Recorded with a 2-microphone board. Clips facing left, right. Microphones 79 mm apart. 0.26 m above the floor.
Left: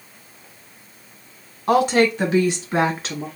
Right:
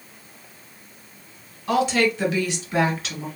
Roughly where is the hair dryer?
No hair dryer in this recording.